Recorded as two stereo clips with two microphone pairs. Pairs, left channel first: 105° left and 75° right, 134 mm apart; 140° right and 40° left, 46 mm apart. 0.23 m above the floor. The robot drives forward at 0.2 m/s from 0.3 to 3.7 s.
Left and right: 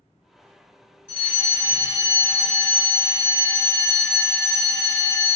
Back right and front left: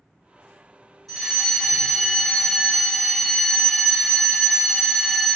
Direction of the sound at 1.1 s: 130° left.